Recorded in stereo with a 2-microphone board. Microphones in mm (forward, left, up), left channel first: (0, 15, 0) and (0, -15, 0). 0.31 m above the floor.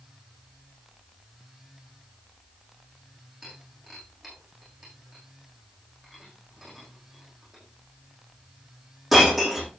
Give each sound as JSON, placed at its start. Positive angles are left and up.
{"t": 3.4, "sound": "breaking glass", "side_deg": -5, "distance_m": 7.5}